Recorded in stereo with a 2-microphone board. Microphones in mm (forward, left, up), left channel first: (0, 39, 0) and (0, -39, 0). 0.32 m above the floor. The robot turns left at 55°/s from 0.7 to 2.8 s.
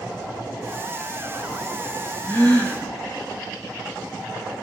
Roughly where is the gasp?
Left.